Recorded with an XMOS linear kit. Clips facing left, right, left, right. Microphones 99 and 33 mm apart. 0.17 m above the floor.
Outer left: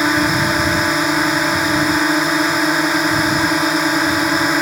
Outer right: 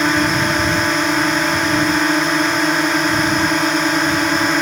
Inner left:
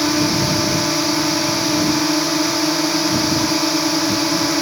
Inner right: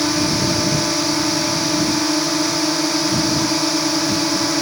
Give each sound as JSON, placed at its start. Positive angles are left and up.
{"t": 0.0, "sound": "a drone", "side_deg": 5}